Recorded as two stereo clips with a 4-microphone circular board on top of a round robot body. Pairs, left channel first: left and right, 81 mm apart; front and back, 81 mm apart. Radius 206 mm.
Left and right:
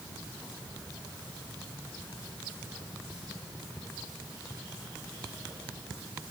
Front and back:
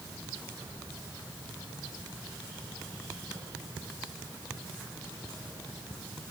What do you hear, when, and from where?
Only background noise.